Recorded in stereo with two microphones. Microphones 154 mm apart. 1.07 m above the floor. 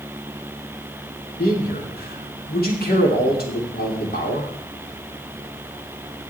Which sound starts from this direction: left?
A man speaking, at 1.4 s.